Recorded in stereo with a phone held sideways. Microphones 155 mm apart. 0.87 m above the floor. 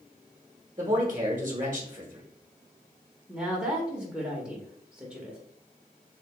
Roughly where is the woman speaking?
Centre.